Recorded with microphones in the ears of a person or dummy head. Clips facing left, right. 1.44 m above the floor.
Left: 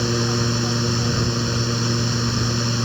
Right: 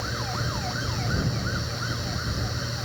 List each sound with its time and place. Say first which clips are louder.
0.0 s a fan: left 11 dB; 70° left (ahead or behind)